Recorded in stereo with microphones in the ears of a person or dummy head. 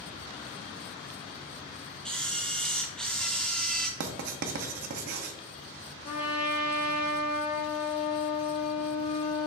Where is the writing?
60° right (ahead or behind), 0.5 m.